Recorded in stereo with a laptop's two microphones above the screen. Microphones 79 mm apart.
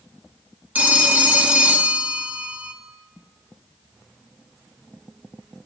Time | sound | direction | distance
0.8 | a phone ringing | 20° right (ahead or behind) | 1.1 m